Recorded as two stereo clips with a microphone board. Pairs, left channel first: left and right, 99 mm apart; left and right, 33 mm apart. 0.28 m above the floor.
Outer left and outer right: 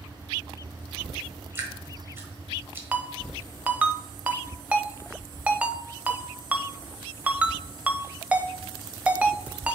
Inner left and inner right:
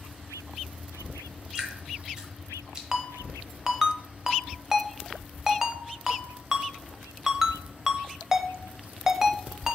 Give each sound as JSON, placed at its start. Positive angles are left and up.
{"t": 1.6, "sound": "dripping", "side_deg": -25, "distance_m": 1.3}
{"t": 2.9, "sound": "a ringtone", "side_deg": -15, "distance_m": 0.5}